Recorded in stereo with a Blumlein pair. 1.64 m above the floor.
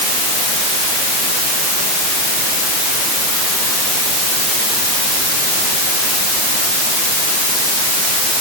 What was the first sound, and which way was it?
Only background noise.